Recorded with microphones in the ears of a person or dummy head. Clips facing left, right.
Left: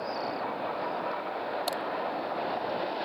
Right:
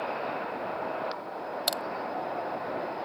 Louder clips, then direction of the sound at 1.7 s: Left 1 dB; 15° right (ahead or behind).